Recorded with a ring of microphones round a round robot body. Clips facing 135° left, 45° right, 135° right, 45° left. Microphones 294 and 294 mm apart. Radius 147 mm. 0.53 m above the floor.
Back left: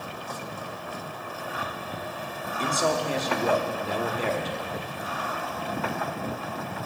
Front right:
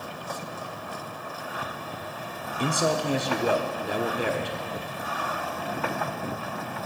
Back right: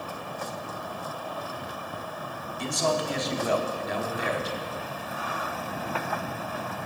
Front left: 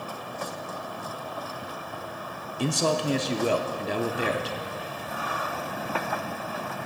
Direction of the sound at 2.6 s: 25° left.